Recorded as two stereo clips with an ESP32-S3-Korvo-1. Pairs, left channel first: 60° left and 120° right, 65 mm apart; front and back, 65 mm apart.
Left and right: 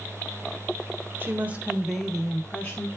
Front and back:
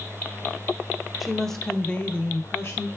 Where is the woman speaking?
90° right, 0.9 m; by 2.9 s 30° left, 0.9 m.